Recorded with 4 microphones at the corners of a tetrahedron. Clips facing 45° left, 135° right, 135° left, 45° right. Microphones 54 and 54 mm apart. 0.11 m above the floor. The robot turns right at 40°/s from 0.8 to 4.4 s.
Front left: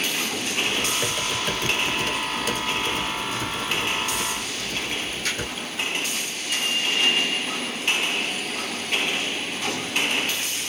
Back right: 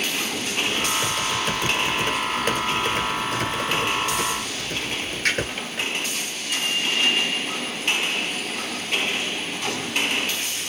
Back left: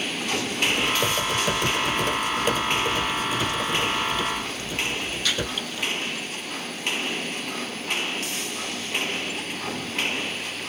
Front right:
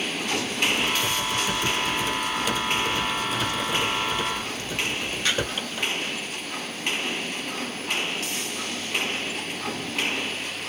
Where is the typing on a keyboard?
115° left, 1.6 m; by 5.9 s 100° right, 1.6 m.